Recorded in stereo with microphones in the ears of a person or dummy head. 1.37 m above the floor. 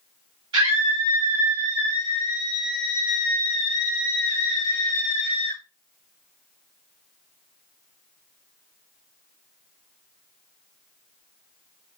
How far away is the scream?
About 3.5 m.